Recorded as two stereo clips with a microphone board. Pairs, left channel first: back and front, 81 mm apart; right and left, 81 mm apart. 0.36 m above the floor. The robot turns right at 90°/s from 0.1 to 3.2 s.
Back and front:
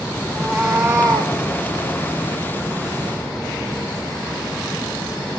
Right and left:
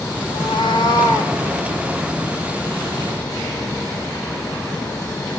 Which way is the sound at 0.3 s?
120° right.